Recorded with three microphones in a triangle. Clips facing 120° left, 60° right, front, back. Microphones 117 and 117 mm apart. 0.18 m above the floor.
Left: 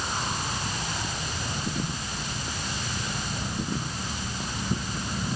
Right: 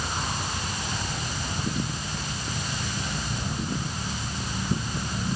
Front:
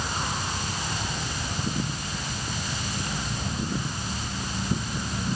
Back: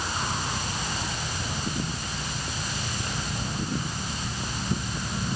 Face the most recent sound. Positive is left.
No sound to turn to.